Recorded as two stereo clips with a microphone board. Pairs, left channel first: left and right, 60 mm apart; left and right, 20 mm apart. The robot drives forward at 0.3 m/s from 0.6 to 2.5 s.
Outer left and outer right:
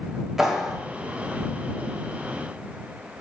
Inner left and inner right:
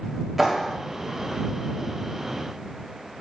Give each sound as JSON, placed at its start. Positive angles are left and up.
{"t": 0.4, "sound": "a clap", "side_deg": -5, "distance_m": 1.1}